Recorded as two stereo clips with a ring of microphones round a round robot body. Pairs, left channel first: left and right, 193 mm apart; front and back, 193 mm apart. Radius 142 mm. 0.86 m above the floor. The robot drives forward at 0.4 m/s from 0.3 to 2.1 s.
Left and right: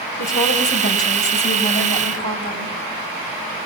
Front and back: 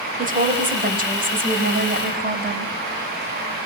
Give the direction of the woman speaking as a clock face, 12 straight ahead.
8 o'clock.